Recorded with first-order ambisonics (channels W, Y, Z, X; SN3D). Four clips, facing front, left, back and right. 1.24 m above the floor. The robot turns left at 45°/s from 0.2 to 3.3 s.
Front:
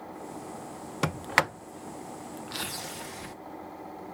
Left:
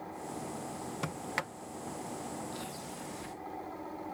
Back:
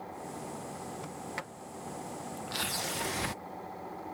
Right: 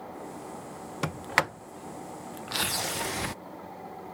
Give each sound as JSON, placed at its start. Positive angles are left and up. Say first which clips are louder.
{"t": 1.0, "sound": "a sliding door", "louder": "right 11 dB, front 14 dB", "azimuth_deg": -20}